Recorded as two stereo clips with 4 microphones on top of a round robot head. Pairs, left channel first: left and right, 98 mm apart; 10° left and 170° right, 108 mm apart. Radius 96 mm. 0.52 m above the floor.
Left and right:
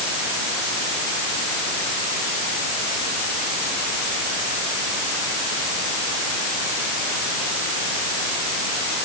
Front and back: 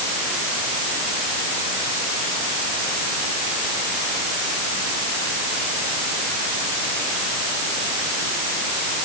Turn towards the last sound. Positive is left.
No sound to turn to.